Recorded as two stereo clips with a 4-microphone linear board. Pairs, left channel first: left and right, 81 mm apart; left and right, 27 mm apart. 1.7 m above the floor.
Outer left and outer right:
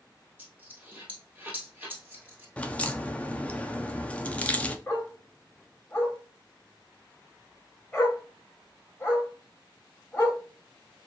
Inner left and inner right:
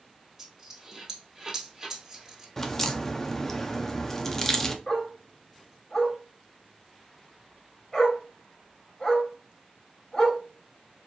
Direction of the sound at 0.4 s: 20° right (ahead or behind).